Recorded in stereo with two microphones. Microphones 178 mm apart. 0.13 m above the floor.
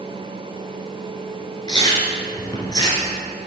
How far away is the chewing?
About 1.7 m.